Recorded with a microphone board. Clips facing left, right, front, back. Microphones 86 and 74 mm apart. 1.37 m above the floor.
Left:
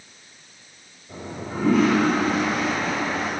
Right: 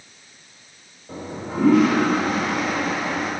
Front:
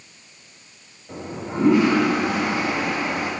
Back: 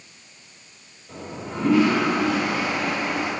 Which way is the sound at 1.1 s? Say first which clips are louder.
Right 2 dB, front 3 dB; 70° right.